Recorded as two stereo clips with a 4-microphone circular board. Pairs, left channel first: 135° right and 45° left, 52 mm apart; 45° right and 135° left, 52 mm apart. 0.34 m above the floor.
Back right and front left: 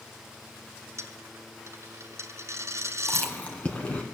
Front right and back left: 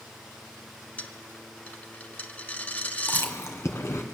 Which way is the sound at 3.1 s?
75° right.